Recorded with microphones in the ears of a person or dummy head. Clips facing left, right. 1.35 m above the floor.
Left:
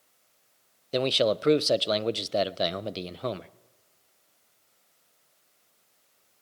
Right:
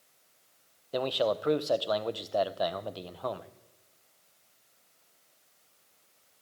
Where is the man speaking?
35° left (ahead or behind), 0.5 m.